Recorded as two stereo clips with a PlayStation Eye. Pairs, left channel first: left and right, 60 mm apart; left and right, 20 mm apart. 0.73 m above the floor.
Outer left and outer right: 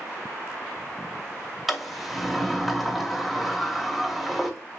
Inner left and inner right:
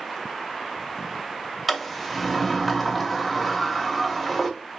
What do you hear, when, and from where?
1.7 s a sliding door: centre (ahead or behind), 0.6 m